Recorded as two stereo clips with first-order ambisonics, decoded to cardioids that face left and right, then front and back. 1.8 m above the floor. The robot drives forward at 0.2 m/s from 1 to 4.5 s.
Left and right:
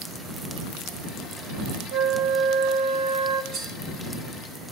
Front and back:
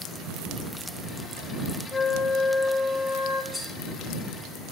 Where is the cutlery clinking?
95° right, 2 m.